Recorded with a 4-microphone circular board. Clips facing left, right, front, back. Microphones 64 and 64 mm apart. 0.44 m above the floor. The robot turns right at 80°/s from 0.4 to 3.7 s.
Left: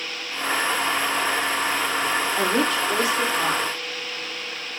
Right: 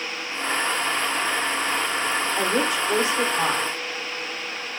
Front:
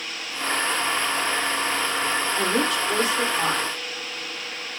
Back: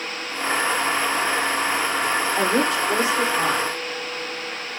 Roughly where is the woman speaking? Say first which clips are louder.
Left 1 dB, back 3 dB; behind.